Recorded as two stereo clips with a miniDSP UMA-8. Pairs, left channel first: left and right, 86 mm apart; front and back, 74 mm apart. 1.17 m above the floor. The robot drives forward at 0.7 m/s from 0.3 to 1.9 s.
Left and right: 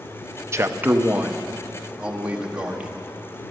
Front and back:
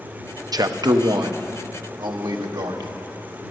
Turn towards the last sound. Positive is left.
turn(degrees=-165)